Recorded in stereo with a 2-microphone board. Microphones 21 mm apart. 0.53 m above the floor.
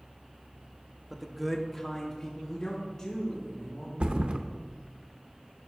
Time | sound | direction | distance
1.1 | a man speaking | 10° right (ahead or behind) | 0.7 m
4.0 | a thud | 60° right (ahead or behind) | 0.5 m